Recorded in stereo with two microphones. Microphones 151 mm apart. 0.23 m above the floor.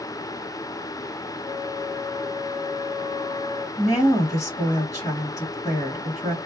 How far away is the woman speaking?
About 1.4 m.